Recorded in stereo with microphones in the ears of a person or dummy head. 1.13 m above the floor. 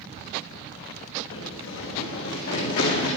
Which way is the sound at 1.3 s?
70° left (ahead or behind).